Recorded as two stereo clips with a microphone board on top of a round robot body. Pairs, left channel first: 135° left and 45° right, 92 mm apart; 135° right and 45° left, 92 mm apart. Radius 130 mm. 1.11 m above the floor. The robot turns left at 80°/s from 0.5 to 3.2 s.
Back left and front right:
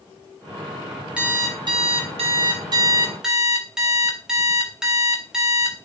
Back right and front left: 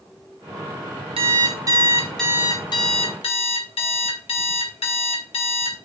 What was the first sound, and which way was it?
An alarm clock, 35° left.